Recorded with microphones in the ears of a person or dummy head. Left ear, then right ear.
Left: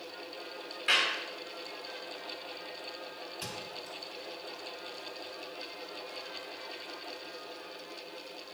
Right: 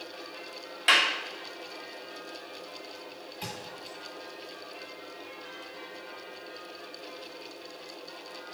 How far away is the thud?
About 3 m.